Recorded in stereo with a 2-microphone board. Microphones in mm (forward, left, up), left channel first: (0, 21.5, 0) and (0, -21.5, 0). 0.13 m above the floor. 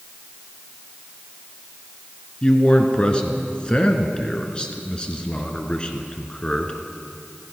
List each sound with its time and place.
2.4 s a man speaking: 25° left (ahead or behind), 1.5 m